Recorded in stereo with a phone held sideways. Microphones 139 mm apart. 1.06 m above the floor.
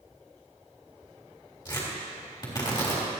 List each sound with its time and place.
1.6 s tearing paper: 35° left (ahead or behind), 4 m